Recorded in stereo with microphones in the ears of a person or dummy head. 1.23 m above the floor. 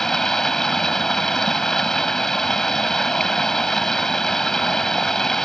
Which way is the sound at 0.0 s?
5° left (ahead or behind).